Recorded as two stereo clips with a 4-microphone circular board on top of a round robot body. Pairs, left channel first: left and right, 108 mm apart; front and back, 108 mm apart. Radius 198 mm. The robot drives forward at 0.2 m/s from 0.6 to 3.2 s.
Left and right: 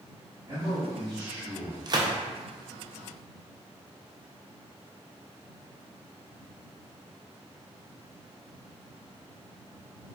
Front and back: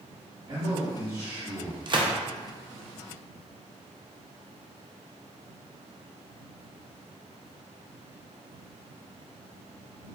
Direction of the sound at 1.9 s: 135° right.